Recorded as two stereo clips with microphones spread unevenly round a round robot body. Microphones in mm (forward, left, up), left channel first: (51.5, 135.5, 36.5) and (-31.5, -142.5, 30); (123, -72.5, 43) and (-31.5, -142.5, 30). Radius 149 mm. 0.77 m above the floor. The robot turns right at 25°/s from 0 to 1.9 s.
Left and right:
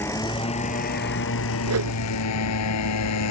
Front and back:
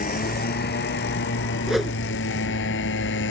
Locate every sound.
0.0 s a motorcycle: 10° right; by 3.3 s 40° left
1.7 s a whoosh: 70° right; by 2.0 s 60° right